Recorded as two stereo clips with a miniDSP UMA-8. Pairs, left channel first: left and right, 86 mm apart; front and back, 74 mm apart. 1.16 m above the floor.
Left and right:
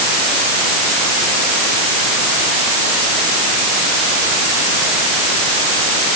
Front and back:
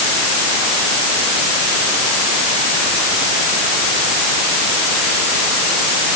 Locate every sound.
Only background noise.